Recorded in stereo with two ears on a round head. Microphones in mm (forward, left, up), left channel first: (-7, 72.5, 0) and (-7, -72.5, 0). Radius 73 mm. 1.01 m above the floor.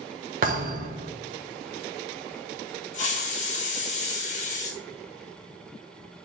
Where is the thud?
55° right (ahead or behind), 1.3 m.